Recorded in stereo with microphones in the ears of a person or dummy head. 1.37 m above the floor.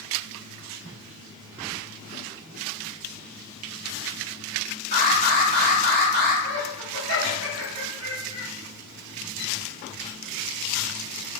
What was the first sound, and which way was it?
An alarm, 45° right (ahead or behind).